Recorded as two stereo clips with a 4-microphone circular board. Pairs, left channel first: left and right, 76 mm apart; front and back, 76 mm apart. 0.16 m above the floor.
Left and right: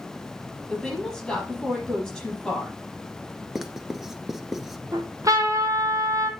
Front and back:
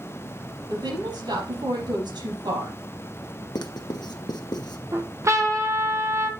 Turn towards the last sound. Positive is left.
turn(degrees=-130)